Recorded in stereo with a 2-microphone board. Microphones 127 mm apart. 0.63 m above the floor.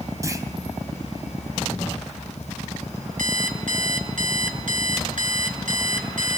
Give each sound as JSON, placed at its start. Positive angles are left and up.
{"t": 0.2, "sound": "a clunk", "side_deg": -25, "distance_m": 3.5}
{"t": 3.2, "sound": "an alarm clock", "side_deg": -85, "distance_m": 3.5}